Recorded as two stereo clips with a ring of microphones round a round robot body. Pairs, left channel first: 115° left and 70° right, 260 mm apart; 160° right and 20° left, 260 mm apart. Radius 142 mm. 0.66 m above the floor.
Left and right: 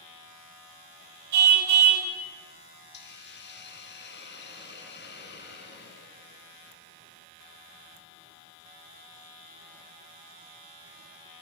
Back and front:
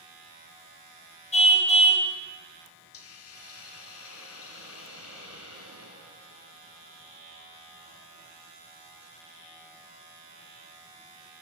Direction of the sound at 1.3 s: 90° right.